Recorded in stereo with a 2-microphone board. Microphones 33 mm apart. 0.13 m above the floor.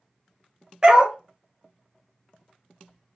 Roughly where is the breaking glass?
No breaking glass in this recording.